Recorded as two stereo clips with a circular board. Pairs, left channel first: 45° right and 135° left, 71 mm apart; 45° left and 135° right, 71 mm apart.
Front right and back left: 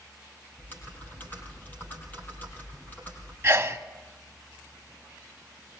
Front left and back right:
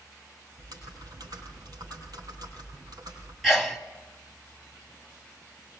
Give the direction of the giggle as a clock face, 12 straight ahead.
I don't hear a giggle.